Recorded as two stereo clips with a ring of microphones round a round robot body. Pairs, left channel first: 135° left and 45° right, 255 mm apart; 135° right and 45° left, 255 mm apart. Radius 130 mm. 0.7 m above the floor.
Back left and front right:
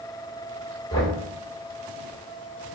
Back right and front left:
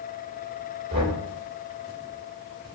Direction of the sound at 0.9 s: 65° left.